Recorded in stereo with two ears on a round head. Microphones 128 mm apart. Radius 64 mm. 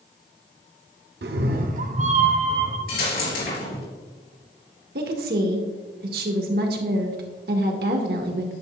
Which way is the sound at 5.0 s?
75° right (ahead or behind).